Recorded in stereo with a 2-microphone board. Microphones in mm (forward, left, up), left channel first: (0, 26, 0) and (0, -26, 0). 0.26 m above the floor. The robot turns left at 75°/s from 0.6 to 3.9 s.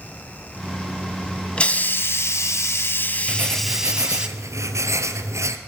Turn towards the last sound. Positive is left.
turn(degrees=-65)